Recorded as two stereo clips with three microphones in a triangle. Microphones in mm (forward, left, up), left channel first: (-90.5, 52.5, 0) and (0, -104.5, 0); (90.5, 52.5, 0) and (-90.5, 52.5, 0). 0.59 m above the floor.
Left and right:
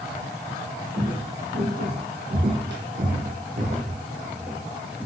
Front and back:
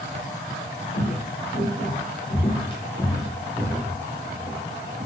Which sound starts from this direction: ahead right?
Footsteps, at 0.9 s.